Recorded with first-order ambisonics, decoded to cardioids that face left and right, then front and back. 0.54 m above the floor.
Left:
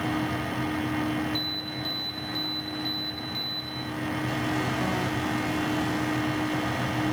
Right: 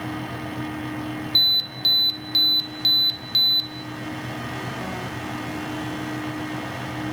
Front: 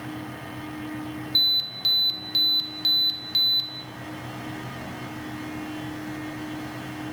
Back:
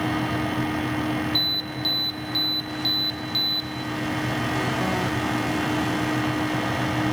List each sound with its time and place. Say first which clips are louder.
1.4 s an alarm: right 12 dB, front 6 dB; 80° right, 2 m